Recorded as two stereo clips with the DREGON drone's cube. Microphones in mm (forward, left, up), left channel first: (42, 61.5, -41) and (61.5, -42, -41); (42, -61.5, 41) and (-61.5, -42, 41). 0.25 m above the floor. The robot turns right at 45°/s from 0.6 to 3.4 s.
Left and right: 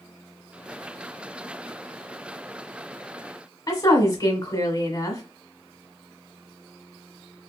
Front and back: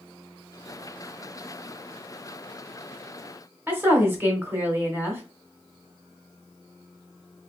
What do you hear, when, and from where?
3.7 s a woman speaking: 110° left, 1.2 m